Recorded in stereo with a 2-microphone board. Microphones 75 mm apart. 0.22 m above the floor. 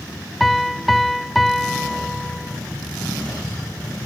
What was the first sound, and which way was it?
A piano, centre (ahead or behind).